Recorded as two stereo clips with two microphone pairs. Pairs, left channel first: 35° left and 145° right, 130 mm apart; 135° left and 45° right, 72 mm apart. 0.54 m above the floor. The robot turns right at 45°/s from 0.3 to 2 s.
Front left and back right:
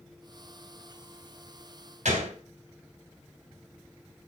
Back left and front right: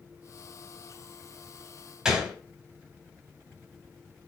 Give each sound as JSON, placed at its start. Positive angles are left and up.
{"t": 2.0, "sound": "a gunshot", "azimuth_deg": -125, "distance_m": 2.5}